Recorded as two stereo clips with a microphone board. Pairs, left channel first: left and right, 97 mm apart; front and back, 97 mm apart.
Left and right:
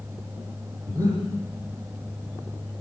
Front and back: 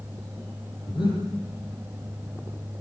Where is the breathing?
35° right, 10 m.